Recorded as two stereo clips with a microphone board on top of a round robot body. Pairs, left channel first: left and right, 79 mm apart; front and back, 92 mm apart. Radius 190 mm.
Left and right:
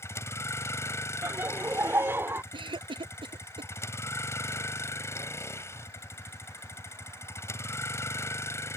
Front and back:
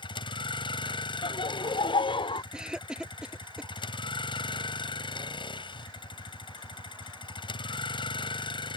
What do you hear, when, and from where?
0.0 s a vehicle: 35° left
1.2 s laughter: 30° right
2.5 s a cough: 100° right